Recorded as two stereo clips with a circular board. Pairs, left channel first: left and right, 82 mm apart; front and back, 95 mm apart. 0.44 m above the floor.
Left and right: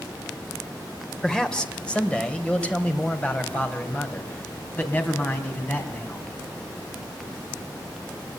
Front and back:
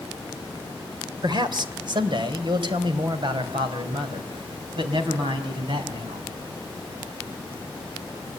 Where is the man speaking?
170° left, 2 m; by 6.3 s 155° left, 4.5 m.